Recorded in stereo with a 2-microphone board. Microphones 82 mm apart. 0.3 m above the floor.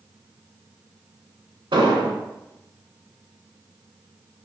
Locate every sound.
1.7 s an explosion: 85° right, 0.7 m